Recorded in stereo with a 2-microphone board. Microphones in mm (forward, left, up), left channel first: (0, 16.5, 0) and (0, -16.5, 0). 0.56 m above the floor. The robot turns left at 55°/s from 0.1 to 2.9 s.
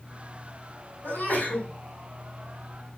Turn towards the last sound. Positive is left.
turn(degrees=-35)